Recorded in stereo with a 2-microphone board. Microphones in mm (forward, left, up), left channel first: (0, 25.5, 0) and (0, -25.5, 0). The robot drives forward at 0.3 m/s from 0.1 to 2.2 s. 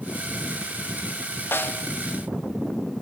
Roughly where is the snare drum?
Left.